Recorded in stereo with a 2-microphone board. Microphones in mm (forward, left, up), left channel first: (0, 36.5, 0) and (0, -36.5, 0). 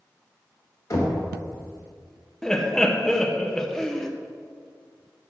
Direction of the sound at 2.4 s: 10° left (ahead or behind).